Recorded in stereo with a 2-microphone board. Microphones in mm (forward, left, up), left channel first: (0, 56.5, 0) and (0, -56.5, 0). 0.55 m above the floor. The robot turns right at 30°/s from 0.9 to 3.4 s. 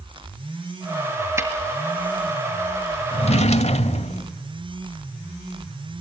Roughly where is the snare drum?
Right.